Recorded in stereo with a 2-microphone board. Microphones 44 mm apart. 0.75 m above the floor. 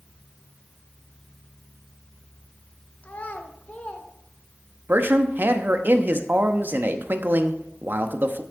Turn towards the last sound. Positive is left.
turn(degrees=-45)  # may be behind; listen again after turning